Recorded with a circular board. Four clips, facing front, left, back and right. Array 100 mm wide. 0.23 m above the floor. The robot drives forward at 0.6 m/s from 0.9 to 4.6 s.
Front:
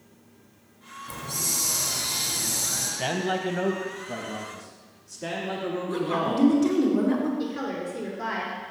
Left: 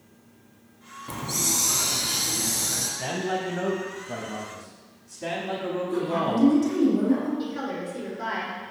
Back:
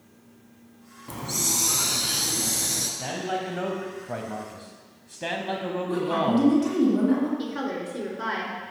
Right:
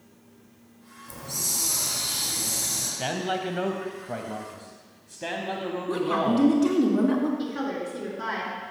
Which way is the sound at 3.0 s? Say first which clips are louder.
Even, front 3 dB; 35° right.